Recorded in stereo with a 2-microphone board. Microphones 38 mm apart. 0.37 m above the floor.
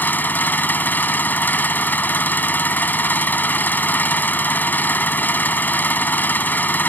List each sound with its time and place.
0.0 s an engine running: 55° left (ahead or behind)